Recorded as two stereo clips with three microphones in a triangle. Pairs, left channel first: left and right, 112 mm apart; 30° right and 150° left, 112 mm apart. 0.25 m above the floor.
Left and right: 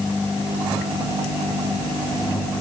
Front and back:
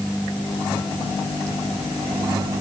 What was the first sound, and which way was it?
Only background noise.